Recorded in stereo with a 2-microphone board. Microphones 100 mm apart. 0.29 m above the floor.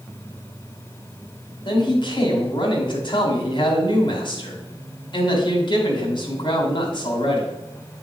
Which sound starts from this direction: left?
A man speaking, at 1.6 s.